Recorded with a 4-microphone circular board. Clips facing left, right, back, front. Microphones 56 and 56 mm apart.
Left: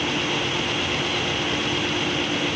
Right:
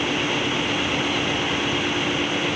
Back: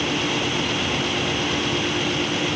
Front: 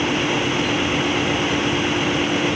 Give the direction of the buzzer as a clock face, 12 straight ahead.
I don't hear a buzzer.